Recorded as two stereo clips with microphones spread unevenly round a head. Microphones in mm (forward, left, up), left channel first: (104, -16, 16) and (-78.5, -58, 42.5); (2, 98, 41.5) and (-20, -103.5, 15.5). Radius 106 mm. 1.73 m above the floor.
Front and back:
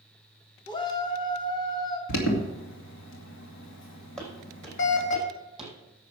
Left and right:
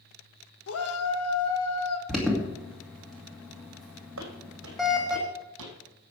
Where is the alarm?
Straight ahead, 2.5 m.